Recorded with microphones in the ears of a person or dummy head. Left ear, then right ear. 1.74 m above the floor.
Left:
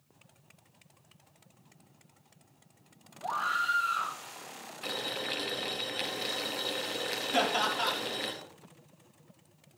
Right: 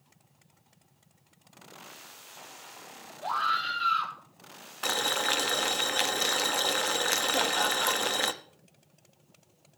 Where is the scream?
30° right (ahead or behind), 3 m.